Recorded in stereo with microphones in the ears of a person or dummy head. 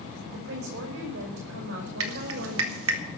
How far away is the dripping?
About 1.8 m.